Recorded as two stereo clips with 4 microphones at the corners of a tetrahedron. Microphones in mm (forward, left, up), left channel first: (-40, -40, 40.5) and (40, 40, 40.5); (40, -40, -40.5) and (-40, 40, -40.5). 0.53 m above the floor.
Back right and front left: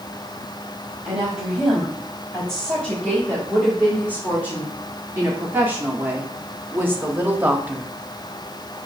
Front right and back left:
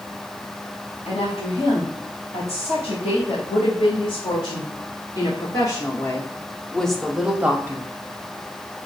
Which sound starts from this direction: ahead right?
A woman speaking, at 1.1 s.